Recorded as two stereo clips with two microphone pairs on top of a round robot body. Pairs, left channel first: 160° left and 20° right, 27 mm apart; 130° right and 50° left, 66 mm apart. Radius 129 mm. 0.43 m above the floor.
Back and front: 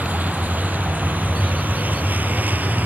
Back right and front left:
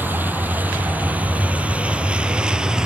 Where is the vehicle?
10° right; by 2.9 s 30° right.